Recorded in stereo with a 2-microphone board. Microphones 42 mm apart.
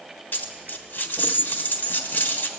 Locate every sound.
0.3 s a dropped coin: 45° left (ahead or behind), 1.2 m